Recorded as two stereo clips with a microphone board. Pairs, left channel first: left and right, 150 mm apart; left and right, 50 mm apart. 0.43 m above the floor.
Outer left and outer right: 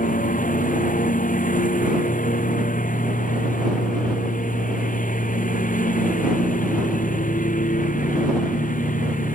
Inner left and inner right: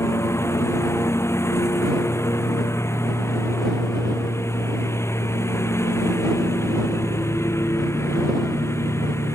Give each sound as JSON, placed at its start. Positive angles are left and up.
{"t": 0.0, "sound": "a lawn mower", "side_deg": 75}